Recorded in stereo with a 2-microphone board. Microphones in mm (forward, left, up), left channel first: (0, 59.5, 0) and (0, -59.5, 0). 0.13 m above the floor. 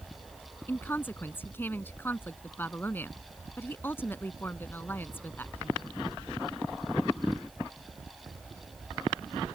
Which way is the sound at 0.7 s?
20° left (ahead or behind).